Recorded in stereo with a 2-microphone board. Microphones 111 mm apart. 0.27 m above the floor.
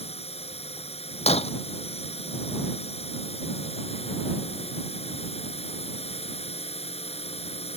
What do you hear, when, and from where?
0.0 s a drone: 65° left (ahead or behind)
1.3 s breaking glass: 70° left (ahead or behind)